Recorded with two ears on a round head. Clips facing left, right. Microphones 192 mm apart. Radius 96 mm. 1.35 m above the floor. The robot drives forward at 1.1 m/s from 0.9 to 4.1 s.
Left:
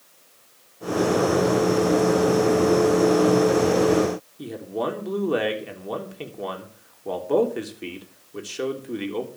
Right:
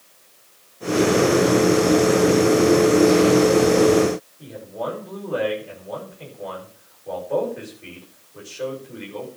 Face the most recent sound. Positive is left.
turn(degrees=85)